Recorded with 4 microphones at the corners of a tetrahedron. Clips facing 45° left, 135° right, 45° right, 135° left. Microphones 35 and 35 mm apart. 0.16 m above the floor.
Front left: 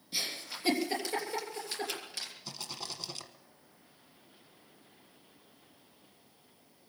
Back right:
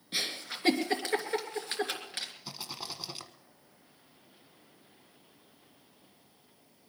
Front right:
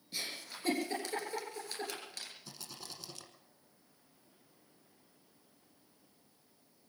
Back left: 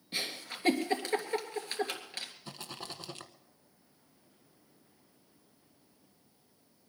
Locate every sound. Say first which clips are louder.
0.1 s a giggle: back right 3 dB, back left 5 dB; straight behind, 3 m
2.5 s a rattle: back right 1 dB, back left 6 dB; 155° left, 1.2 m